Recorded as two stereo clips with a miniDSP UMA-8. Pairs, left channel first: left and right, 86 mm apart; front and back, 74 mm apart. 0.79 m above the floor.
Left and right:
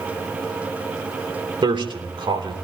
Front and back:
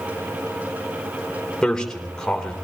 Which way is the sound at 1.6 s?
80° right.